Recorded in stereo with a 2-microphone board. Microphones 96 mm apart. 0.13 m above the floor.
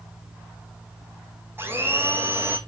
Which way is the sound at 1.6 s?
25° right (ahead or behind).